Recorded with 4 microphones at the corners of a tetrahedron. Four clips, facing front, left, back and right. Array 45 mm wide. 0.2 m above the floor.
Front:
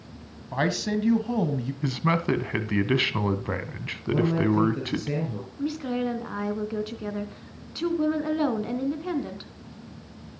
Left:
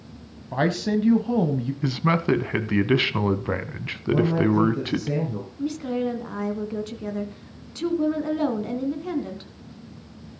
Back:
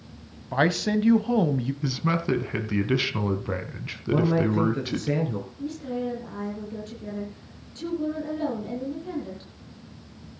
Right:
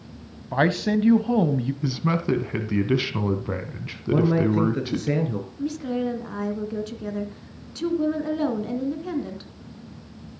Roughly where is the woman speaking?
Ahead.